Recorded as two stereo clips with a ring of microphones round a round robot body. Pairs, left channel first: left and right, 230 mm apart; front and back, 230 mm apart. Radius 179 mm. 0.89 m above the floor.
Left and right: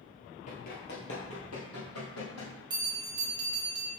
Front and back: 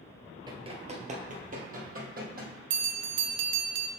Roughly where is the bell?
Behind.